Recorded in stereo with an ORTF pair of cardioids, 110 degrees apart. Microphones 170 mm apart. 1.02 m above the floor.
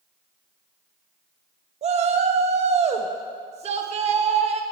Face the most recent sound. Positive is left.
turn(degrees=-40)